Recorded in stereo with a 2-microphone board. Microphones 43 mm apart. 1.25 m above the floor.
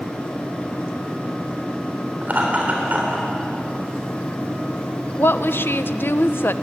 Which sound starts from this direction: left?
A woman speaking, at 5.2 s.